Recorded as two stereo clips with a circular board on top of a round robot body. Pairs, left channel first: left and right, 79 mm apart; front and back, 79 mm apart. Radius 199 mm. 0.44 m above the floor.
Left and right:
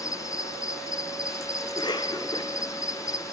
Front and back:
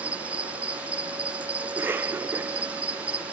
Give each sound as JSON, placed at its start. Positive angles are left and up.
{"t": 0.0, "sound": "an insect", "azimuth_deg": 110, "distance_m": 1.2}
{"t": 1.6, "sound": "a cough", "azimuth_deg": 115, "distance_m": 2.5}